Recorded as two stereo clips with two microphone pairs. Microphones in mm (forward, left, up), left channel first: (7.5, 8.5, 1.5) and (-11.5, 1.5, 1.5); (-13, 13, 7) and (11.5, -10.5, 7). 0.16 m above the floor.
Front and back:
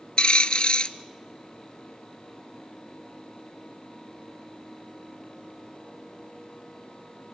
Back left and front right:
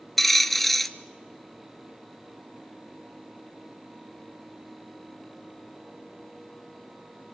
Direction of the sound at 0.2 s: 50° left.